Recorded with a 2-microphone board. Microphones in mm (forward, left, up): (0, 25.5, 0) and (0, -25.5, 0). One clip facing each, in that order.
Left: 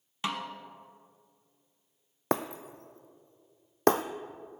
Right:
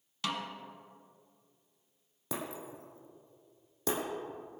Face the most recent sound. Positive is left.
turn(degrees=65)  # may be behind; listen again after turning